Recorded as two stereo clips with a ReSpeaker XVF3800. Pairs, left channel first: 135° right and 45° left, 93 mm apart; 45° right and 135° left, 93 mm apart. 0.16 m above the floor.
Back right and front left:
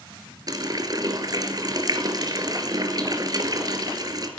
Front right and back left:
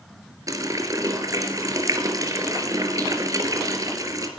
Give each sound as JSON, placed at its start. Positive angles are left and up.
{"t": 0.5, "sound": "a running tap", "azimuth_deg": 85, "distance_m": 1.7}